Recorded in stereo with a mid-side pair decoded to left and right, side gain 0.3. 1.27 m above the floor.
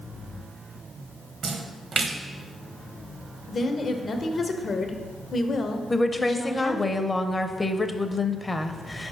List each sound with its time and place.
1.4 s a splash: 65° right, 0.9 m
3.5 s a woman speaking: 55° left, 0.9 m
5.9 s a woman speaking: 35° left, 0.7 m